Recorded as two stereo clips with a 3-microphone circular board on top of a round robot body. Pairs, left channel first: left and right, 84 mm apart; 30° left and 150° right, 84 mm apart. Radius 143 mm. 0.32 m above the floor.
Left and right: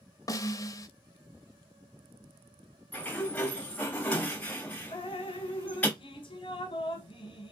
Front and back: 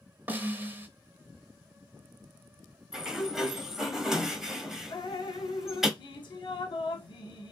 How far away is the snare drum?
About 0.5 m.